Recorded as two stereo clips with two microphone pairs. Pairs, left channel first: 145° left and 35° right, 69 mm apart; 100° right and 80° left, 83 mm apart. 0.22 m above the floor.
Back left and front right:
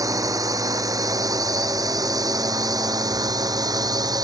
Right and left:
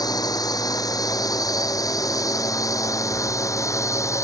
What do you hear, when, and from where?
0.0 s a drone: 65° right; by 4.2 s 50° right